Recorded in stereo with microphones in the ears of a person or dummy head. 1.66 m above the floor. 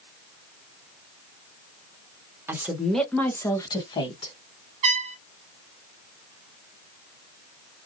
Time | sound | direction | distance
2.5 | a woman speaking | 15° right (ahead or behind) | 1.0 m
4.8 | a trumpet | 35° right (ahead or behind) | 0.5 m